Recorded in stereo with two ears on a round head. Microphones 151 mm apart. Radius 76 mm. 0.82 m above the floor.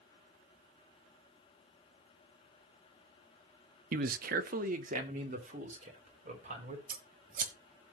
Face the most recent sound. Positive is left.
turn(degrees=-50)  # may be behind; listen again after turning